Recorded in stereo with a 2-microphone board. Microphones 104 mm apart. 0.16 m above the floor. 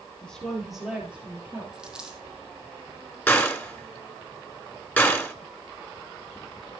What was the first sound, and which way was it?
A woman speaking, 10° left (ahead or behind).